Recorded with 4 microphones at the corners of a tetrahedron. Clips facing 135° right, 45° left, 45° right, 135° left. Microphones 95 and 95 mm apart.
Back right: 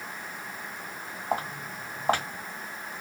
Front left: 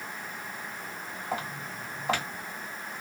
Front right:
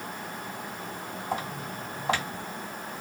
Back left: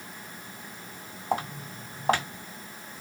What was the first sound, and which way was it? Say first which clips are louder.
Footsteps: back right 4 dB, back left 4 dB; 175° left.